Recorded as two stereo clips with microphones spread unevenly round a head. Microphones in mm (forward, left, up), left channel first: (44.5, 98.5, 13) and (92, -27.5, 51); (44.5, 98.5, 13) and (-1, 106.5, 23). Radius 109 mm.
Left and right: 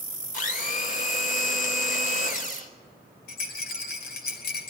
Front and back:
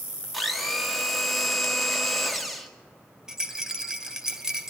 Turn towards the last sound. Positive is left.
turn(degrees=105)